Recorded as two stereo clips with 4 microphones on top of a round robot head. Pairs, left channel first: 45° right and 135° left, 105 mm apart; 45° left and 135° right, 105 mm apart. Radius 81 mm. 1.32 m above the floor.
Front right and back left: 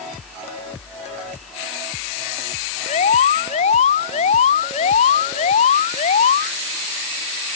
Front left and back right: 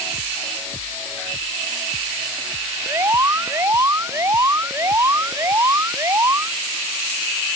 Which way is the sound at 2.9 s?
70° right.